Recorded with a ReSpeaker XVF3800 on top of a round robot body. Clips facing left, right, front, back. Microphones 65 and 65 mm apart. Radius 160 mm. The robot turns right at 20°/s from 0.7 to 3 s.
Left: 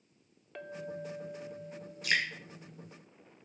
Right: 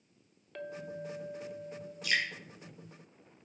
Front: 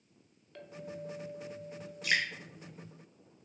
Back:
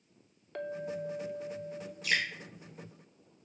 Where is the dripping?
40° left, 2 m; by 2.2 s 45° left, 2 m.